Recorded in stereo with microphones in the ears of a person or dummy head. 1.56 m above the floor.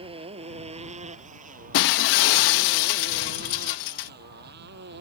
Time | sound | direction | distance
0.0 | a motorcycle | 30° right (ahead or behind) | ?
1.7 | breaking glass | 60° left (ahead or behind) | ?